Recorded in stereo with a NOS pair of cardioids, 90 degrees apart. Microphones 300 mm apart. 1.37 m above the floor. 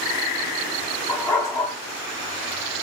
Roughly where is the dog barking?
Ahead.